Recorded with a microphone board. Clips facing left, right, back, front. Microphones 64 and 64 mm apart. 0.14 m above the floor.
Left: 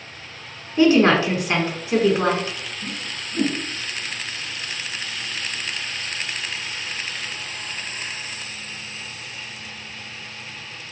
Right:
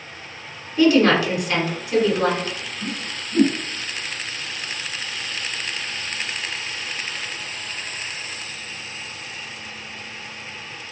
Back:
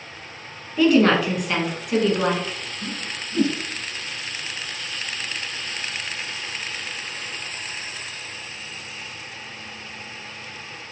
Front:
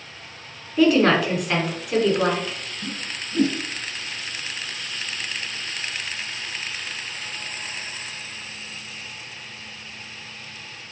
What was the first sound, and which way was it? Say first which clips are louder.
A woman speaking: even, even; 85° left.